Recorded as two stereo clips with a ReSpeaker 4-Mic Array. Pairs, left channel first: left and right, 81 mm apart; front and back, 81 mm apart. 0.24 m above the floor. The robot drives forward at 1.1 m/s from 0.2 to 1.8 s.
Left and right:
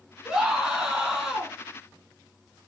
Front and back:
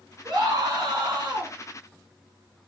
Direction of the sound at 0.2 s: 175° right.